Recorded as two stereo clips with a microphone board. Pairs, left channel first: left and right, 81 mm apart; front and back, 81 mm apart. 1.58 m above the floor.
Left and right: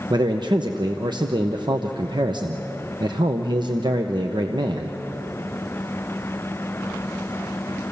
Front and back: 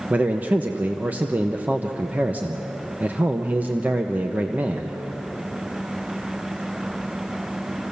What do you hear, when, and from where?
0.1 s a man speaking: 110° right, 0.9 m